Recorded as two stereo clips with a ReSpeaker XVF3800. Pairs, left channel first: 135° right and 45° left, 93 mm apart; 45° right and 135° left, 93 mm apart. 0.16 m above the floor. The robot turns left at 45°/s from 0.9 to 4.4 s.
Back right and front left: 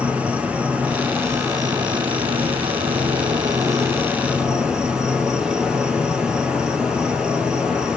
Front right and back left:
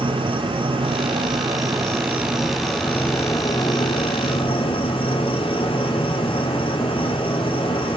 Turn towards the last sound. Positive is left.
turn(degrees=-35)